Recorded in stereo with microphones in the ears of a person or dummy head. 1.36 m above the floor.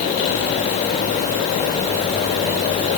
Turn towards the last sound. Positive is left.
No sound to turn to.